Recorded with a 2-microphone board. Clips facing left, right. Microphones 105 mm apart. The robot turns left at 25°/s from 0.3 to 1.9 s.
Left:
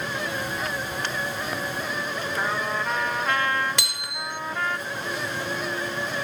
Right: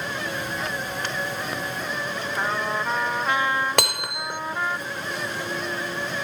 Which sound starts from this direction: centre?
A trumpet, at 2.4 s.